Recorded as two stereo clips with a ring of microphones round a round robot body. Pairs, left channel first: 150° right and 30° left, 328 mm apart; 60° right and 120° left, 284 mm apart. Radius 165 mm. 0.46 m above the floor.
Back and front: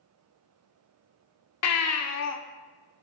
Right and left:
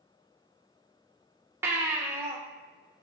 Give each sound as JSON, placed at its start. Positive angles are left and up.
{"t": 1.6, "sound": "a baby crying", "azimuth_deg": -160, "distance_m": 0.8}